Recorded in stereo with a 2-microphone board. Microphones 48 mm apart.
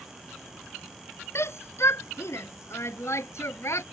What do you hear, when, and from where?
1.4 s a shout: 65° left (ahead or behind); by 3.8 s 70° left (ahead or behind)